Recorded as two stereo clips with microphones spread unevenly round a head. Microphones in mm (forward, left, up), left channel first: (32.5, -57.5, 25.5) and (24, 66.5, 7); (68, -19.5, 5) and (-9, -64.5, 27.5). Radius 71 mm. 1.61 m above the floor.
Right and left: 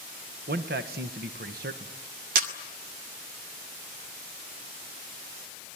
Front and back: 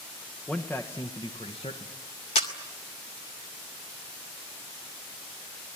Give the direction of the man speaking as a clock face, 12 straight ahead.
8 o'clock.